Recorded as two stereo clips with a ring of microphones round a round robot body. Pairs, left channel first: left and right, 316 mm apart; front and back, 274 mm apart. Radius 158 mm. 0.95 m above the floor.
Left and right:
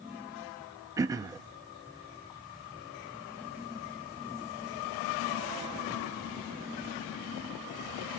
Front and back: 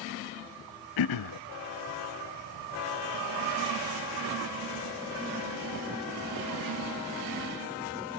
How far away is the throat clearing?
About 0.5 m.